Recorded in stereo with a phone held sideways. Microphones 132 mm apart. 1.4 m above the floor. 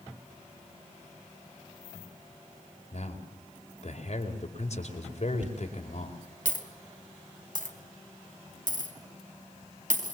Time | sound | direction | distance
2.9 | a man speaking | 55° left (ahead or behind) | 5 m
5.4 | a dropped coin | 75° right (ahead or behind) | 4 m